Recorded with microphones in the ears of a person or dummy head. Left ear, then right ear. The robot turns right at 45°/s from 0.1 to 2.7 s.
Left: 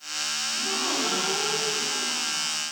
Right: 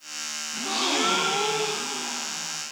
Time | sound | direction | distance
0.5 | a gasp | 90° right | 0.8 m